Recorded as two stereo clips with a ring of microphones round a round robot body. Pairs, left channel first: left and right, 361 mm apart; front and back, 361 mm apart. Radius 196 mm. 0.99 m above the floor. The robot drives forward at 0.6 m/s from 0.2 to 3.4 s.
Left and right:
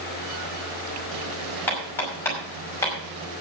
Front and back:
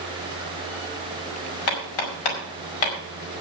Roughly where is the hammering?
Ahead.